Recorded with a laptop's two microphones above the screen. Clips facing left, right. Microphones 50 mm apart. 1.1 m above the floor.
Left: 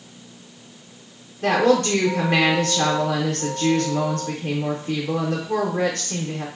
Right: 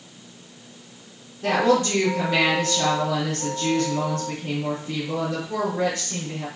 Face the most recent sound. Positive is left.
turn(degrees=60)  # may be behind; listen again after turning